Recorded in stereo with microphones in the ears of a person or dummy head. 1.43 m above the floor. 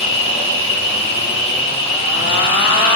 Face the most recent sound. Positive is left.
turn(degrees=40)  # may be behind; listen again after turning